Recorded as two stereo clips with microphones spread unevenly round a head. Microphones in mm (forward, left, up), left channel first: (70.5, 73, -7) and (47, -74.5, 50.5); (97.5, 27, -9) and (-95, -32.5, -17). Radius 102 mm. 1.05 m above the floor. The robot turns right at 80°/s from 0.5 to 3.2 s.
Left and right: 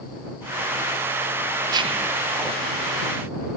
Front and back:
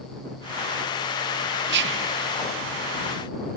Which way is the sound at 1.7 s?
Straight behind.